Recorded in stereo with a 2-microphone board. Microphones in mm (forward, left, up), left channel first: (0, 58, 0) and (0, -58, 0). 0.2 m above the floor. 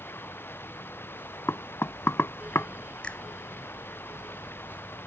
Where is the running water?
15° left (ahead or behind).